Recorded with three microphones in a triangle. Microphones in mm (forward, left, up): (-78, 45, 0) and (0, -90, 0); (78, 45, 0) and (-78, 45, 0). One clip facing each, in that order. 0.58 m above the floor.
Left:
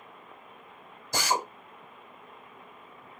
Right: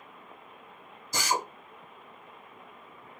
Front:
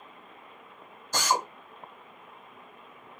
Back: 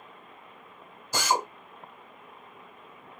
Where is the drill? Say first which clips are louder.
Left 1 dB, back 1 dB; 100° left, 1.1 m.